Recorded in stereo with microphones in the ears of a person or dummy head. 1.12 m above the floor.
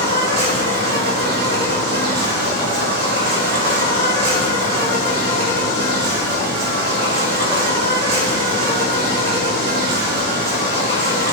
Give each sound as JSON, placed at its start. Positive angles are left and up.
{"t": 0.0, "sound": "an insect", "side_deg": -55, "distance_m": 1.3}